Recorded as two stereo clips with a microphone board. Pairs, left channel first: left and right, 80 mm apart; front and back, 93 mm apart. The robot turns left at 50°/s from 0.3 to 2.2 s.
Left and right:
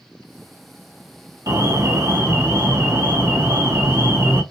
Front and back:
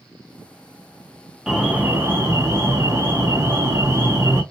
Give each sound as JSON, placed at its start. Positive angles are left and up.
{"t": 1.5, "sound": "an alarm", "azimuth_deg": -95, "distance_m": 2.0}